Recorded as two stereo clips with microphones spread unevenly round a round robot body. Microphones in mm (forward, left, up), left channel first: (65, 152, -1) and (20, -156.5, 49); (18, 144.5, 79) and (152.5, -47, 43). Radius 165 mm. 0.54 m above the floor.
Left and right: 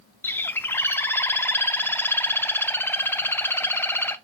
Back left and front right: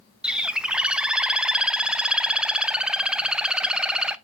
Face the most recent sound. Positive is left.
turn(degrees=15)